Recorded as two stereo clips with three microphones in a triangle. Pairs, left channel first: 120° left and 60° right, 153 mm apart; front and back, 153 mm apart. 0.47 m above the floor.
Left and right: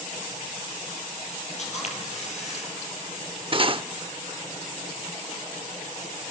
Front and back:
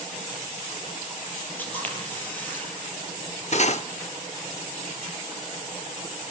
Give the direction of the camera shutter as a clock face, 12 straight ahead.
9 o'clock.